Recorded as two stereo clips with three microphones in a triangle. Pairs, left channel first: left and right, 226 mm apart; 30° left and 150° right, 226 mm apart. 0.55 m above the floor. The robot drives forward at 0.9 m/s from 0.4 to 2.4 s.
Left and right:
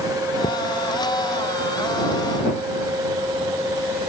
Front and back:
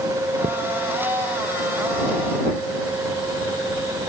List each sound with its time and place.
0.4 s a thud: 160° left